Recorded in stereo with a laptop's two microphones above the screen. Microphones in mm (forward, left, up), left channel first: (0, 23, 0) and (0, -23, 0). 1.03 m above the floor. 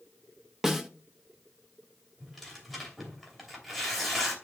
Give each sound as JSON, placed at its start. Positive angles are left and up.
{"t": 0.6, "sound": "a snare drum", "side_deg": -10, "distance_m": 1.4}
{"t": 2.2, "sound": "tearing paper", "side_deg": 5, "distance_m": 2.5}